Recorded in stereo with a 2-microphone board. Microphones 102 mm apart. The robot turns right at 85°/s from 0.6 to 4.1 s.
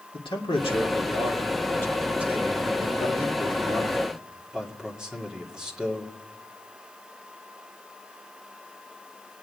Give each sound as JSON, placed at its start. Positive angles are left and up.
{"t": 0.1, "sound": "a man speaking", "azimuth_deg": 55, "distance_m": 2.0}